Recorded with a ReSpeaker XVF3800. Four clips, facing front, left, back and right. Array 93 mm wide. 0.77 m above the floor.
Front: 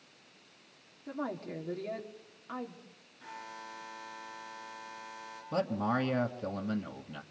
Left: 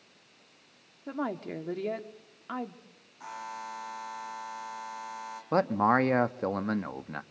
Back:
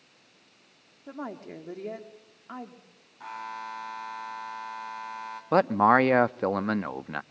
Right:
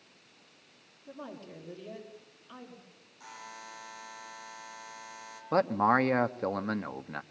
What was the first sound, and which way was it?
A woman speaking, 105° left.